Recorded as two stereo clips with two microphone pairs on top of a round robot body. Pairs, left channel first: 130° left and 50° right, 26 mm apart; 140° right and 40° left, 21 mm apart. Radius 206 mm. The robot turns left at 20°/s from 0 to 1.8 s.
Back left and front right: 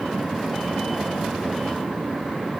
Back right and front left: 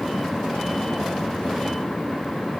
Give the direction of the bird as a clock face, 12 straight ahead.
I don't hear a bird.